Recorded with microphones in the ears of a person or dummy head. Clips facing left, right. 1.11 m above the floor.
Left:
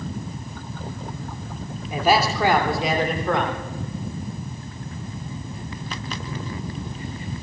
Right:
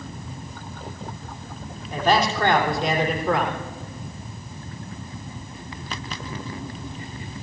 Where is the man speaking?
10° left (ahead or behind), 2.5 m; by 3.5 s 5° right (ahead or behind), 3 m.